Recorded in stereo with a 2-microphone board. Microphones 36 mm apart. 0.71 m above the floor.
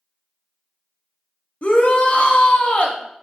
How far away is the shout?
About 0.7 m.